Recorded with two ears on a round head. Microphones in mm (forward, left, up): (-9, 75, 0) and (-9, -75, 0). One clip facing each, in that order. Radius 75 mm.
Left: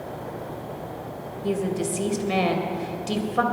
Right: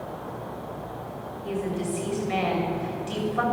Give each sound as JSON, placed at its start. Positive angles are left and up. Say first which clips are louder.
{"t": 1.4, "sound": "a woman speaking", "louder": "left 4 dB", "side_deg": 50, "distance_m": 2.0}